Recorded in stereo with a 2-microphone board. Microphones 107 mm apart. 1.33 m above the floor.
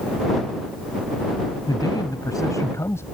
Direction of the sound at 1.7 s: 40° left (ahead or behind).